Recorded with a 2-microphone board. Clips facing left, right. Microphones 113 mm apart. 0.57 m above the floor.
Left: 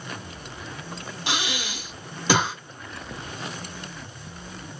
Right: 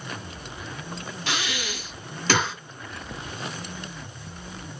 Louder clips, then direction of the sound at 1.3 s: Left 1 dB; 15° left (ahead or behind).